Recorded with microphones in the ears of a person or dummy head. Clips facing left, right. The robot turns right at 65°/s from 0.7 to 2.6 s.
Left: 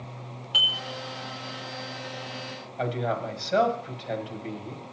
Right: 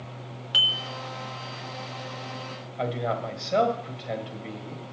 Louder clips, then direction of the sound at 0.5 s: Left 1 dB; 20° right (ahead or behind).